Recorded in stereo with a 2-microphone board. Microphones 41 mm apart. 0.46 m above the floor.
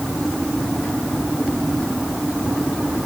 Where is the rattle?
I don't hear a rattle.